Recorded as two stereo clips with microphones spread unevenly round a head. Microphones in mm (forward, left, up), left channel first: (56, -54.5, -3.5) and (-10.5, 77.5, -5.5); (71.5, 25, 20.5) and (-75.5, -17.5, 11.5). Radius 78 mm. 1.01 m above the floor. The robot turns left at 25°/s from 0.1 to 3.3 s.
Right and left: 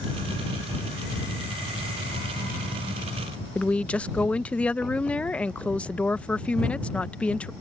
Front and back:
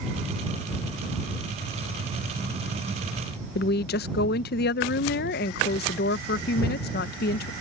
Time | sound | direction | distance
3.5 | a woman speaking | 20° left | ?